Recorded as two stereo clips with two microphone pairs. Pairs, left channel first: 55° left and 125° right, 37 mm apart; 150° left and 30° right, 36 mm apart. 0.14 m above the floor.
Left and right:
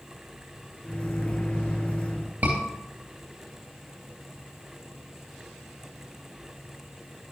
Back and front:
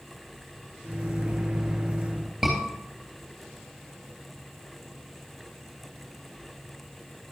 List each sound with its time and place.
0.8 s a microwave: 25° left, 1.9 m
2.4 s a scream: 105° right, 2.5 m